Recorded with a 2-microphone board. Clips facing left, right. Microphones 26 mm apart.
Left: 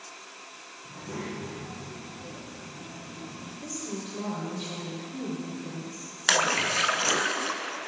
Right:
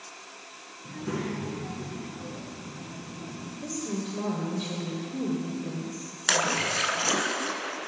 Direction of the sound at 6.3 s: 20° left (ahead or behind).